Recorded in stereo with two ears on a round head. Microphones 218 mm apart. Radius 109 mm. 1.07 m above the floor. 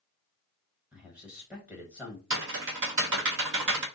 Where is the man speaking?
5° right (ahead or behind), 1.3 m.